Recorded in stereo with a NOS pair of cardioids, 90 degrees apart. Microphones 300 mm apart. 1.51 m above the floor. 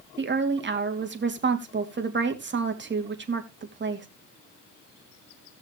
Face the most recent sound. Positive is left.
turn(degrees=-35)